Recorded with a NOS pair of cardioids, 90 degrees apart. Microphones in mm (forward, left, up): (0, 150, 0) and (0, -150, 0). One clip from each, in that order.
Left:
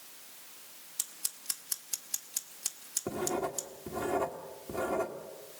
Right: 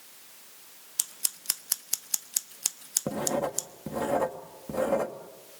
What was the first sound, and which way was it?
Scissors, 30° right.